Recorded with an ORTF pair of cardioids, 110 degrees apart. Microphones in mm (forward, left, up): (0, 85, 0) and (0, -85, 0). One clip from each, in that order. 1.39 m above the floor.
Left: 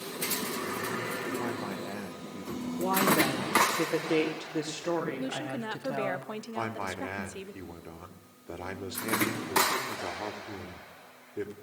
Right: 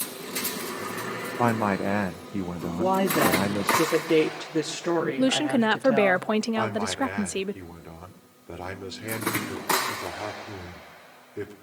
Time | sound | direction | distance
1.4 | a man speaking | 65° right | 0.6 m
2.8 | a woman speaking | 25° right | 3 m
5.2 | a woman speaking | 55° right | 0.6 m
6.5 | a man speaking | 5° right | 3.5 m